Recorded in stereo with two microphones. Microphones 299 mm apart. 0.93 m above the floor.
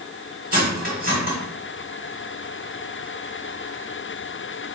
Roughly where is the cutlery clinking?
Right.